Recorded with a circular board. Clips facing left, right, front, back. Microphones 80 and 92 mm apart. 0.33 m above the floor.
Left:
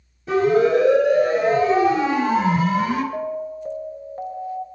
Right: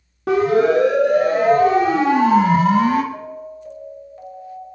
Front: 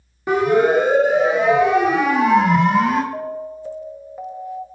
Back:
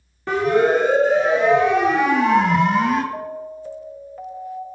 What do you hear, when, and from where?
0.3 s a siren: 75° right, 5 m; by 3.0 s 90° right, 3.5 m
3.1 s an alarm: 70° left, 1.7 m